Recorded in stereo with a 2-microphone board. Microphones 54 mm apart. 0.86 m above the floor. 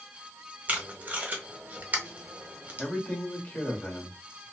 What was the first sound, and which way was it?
Tape being pulled, 30° right (ahead or behind).